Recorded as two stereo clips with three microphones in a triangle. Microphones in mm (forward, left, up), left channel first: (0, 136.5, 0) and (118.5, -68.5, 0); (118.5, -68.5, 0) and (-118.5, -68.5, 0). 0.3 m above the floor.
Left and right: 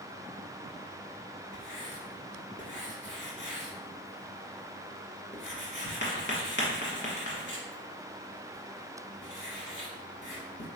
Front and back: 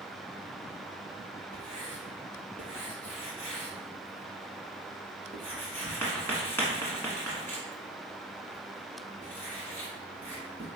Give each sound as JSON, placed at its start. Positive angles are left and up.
{"t": 1.5, "sound": "writing", "azimuth_deg": 80, "distance_m": 1.2}